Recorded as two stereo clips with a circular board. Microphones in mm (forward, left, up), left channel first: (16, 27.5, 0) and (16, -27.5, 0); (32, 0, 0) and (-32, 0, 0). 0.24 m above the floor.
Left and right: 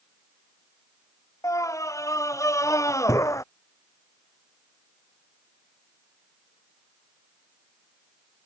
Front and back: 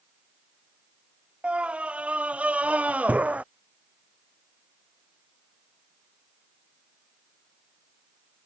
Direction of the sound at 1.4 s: 110° left.